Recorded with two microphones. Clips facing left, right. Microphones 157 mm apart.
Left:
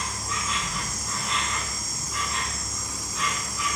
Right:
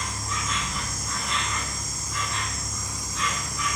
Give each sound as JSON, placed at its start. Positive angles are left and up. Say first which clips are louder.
{"t": 0.0, "sound": "an insect", "louder": "even", "side_deg": 5, "distance_m": 0.7}